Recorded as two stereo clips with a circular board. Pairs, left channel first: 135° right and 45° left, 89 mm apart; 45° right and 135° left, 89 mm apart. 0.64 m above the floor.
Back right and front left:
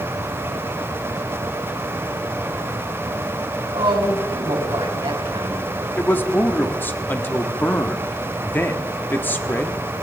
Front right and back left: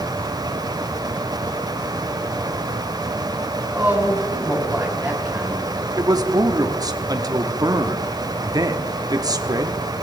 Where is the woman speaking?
65° left, 4 m.